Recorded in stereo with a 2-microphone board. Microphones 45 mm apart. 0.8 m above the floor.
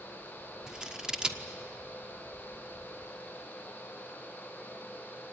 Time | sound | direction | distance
0.7 | scissors | 15° right (ahead or behind) | 1.2 m